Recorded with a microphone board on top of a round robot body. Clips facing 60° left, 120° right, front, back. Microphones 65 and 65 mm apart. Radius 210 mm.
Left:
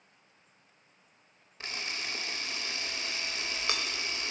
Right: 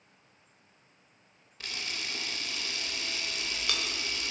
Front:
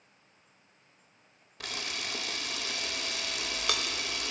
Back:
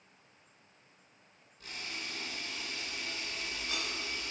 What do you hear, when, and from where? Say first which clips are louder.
1.6 s a camera shutter: left 1 dB, front 5 dB; 5° right, 0.6 m